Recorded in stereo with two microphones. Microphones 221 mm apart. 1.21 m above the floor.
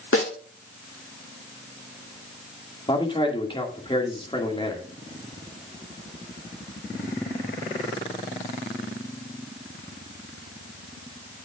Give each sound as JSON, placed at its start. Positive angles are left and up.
{"t": 0.1, "sound": "a snare drum", "side_deg": 70, "distance_m": 1.9}
{"t": 2.9, "sound": "a man speaking", "side_deg": 25, "distance_m": 2.0}